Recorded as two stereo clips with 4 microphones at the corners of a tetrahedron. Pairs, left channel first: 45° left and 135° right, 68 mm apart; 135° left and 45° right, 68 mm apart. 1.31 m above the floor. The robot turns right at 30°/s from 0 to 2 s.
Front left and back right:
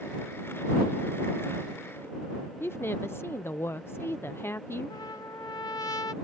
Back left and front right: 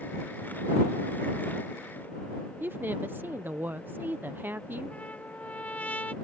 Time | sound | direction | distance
2.6 | a woman speaking | 5° left | ?
4.9 | a trumpet | 65° left | ?